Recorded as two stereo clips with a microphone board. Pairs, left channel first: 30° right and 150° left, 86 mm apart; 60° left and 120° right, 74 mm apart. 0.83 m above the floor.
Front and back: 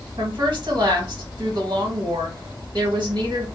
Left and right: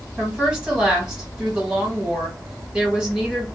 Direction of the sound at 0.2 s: 165° left.